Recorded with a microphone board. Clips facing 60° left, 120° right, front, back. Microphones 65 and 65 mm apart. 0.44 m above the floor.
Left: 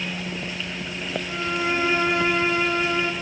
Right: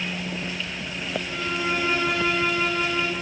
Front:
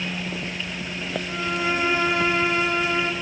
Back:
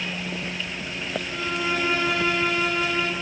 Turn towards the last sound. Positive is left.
turn(degrees=40)